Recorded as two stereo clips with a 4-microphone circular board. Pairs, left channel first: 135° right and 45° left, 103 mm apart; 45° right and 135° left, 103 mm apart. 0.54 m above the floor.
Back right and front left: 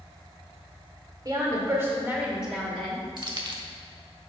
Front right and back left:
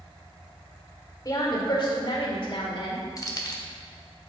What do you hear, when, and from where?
1.2 s a woman speaking: straight ahead, 1.7 m; by 3.0 s 50° right, 2 m
3.2 s keys jangling: 5° left, 0.9 m